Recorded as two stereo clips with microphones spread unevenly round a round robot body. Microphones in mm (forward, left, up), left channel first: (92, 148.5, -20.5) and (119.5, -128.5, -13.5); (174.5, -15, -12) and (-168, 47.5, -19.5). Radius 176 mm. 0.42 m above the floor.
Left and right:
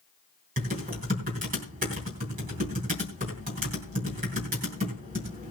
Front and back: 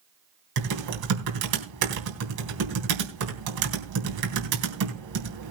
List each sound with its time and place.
0.6 s typing on a keyboard: 150° right, 3.5 m